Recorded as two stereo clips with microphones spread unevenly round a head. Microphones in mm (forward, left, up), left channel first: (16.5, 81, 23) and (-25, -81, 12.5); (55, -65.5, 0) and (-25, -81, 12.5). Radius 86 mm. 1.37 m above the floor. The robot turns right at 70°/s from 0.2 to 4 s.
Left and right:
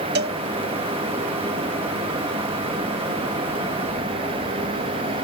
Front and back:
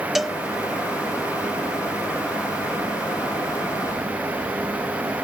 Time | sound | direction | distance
0.1 | a cowbell | 80° right | ?